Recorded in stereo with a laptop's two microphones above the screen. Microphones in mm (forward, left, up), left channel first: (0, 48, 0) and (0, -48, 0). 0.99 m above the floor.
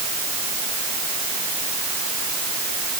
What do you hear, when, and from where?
Only background noise.